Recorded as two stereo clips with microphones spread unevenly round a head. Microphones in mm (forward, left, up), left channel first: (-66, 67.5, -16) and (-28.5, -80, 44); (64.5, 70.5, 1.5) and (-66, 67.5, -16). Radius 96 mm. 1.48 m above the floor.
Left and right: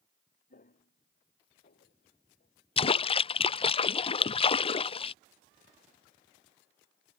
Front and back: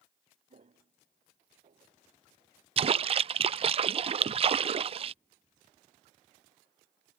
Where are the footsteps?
145° left; by 2.5 s 140° left.